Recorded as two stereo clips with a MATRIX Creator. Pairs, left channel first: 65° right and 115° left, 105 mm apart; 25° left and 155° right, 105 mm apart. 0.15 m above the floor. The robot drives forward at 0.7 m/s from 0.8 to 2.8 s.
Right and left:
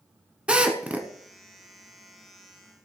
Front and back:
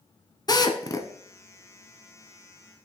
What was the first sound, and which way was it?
A drill, 35° left.